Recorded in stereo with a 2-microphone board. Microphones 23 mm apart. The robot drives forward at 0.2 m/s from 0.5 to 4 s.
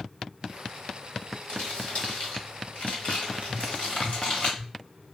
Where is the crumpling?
80° left, 1.8 m; by 4.5 s 65° left (ahead or behind), 1.9 m.